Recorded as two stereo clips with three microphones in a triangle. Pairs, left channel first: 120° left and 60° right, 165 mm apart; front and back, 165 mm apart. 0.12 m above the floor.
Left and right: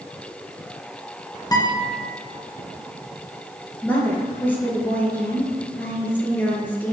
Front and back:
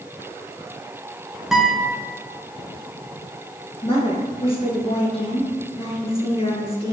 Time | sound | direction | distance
1.5 | a guitar | 95° left | 1.3 m
3.8 | a woman speaking | 45° left | 1.8 m